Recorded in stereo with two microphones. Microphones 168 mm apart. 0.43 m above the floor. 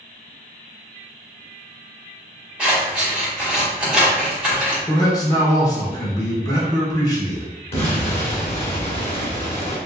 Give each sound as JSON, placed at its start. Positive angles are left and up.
{"t": 2.6, "sound": "scissors", "side_deg": -5, "distance_m": 1.9}
{"t": 4.9, "sound": "a man speaking", "side_deg": 20, "distance_m": 0.9}
{"t": 7.7, "sound": "an explosion", "side_deg": 35, "distance_m": 1.2}